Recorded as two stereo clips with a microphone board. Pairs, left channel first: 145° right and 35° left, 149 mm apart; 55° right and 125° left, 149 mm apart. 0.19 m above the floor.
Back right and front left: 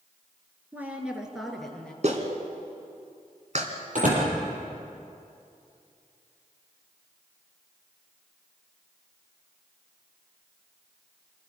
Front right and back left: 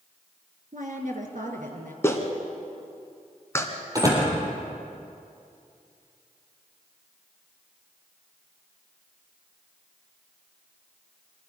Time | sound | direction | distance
0.7 | a woman speaking | 110° left | 3.5 m
2.0 | a clap | 15° left | 2.5 m
4.0 | a door slam | 60° left | 6 m